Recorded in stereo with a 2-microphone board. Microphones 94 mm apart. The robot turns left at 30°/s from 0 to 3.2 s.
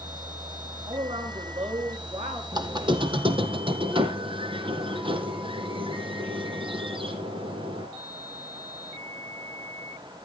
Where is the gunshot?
No gunshot in this recording.